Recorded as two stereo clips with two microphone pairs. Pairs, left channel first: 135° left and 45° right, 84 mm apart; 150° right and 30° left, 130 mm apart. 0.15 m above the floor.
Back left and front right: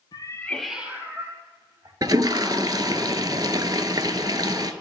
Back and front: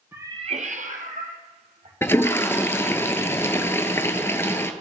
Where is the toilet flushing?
80° right, 0.6 m.